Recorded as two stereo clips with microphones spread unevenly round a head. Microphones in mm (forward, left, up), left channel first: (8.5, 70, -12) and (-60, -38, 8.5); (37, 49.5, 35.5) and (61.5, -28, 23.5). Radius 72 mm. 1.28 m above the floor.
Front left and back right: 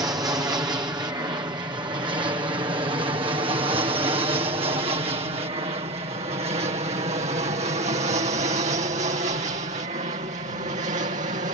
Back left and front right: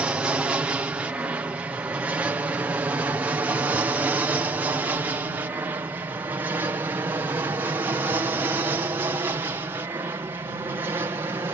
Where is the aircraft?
85° right; by 11.6 s 120° right.